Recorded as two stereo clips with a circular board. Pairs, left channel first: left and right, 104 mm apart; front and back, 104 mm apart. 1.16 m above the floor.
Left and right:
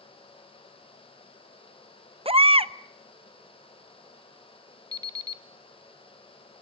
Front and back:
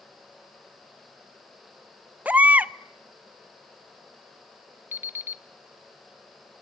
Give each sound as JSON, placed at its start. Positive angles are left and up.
{"t": 2.2, "sound": "a baby crying", "azimuth_deg": -105, "distance_m": 0.6}
{"t": 4.9, "sound": "an alarm clock", "azimuth_deg": -120, "distance_m": 0.9}